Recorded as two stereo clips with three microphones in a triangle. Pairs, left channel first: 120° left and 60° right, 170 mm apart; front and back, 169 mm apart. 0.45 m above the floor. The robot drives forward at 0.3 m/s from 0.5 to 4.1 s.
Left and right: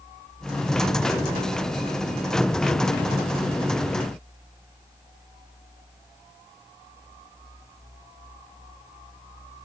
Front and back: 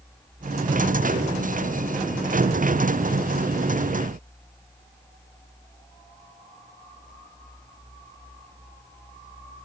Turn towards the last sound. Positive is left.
No sound to turn to.